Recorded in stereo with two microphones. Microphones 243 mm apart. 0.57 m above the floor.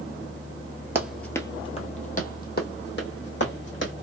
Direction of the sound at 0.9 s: 10° right (ahead or behind).